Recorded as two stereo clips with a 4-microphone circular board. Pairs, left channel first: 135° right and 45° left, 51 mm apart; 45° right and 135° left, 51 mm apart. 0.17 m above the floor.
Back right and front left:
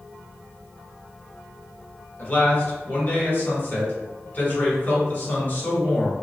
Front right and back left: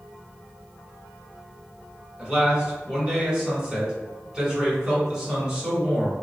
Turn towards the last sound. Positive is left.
turn(degrees=-155)